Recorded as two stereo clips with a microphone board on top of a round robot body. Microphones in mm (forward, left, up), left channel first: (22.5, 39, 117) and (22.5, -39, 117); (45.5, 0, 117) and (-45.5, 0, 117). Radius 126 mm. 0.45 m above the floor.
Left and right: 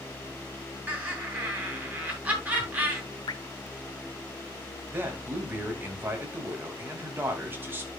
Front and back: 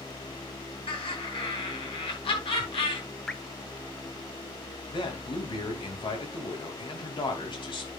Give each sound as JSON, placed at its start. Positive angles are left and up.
{"t": 0.9, "sound": "laughter", "azimuth_deg": -20, "distance_m": 8.5}
{"t": 3.3, "sound": "dripping", "azimuth_deg": 80, "distance_m": 1.0}
{"t": 4.9, "sound": "a man speaking", "azimuth_deg": -30, "distance_m": 3.5}